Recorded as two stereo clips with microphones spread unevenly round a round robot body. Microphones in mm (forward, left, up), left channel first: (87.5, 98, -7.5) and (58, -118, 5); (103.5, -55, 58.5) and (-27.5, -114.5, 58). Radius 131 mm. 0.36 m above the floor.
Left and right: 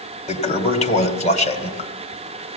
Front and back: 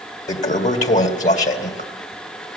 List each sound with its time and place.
0.3 s a toilet flushing: 30° left, 2.5 m